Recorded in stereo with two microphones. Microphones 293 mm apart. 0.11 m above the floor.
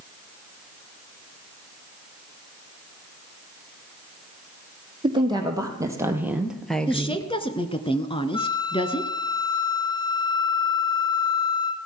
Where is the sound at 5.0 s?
15° right (ahead or behind), 3.5 m; by 7.2 s 15° left (ahead or behind), 1.4 m.